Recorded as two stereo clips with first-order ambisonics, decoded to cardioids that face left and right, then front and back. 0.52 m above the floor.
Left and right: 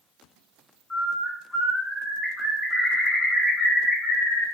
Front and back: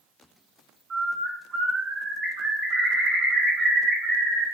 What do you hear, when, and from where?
0.9 s a bird: 160° left, 0.7 m